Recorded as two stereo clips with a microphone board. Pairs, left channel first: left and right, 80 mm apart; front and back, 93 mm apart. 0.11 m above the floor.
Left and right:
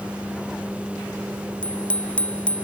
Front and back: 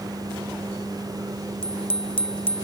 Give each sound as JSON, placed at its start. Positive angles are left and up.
{"t": 1.6, "sound": "a bicycle bell", "azimuth_deg": 15}